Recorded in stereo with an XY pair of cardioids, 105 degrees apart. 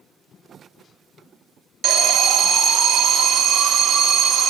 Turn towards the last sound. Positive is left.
turn(degrees=-65)